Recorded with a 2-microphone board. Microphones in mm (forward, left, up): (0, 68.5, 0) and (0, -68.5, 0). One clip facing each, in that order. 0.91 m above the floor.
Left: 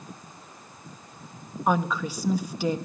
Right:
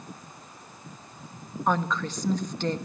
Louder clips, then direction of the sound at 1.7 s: Left 2 dB; 10° left (ahead or behind).